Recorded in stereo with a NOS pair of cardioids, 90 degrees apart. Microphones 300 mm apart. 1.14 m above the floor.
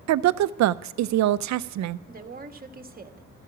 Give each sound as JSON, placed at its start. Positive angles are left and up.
{"t": 0.1, "sound": "a woman speaking", "azimuth_deg": -65, "distance_m": 0.6}
{"t": 2.1, "sound": "a woman speaking", "azimuth_deg": -30, "distance_m": 1.6}